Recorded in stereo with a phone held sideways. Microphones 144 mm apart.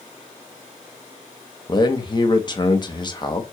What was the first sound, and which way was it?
A man speaking, 30° left (ahead or behind).